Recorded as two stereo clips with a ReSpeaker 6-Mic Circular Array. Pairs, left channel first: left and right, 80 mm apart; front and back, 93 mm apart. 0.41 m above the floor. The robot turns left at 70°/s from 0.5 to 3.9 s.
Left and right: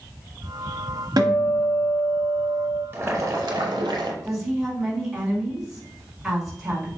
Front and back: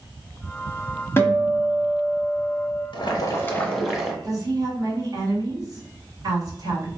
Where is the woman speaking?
170° right, 1.7 m.